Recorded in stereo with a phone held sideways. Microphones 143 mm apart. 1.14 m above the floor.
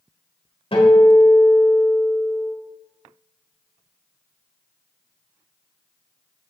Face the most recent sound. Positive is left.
turn(degrees=40)  # may be behind; listen again after turning